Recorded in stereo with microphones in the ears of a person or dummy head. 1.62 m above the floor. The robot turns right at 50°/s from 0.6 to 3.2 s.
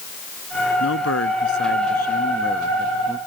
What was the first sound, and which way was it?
A man speaking, 75° left.